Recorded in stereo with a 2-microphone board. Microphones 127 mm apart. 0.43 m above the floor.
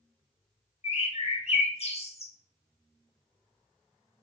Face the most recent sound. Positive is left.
turn(degrees=55)  # may be behind; listen again after turning